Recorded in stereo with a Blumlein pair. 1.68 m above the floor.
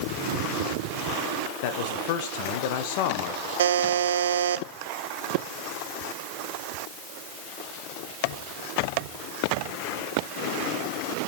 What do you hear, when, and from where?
1.6 s a man speaking: 45° left, 1.4 m
3.6 s a buzzer: 65° right, 0.7 m